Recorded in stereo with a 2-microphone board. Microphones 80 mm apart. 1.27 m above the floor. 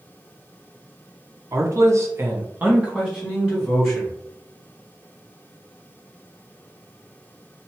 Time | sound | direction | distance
1.5 | a man speaking | 40° right (ahead or behind) | 0.6 m